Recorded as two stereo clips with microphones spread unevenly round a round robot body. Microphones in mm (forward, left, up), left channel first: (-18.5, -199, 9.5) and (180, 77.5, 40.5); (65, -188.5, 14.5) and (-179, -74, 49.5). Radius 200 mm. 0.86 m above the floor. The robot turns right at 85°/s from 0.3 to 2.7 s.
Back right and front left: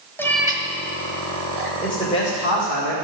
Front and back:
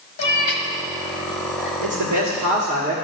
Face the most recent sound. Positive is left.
turn(degrees=-145)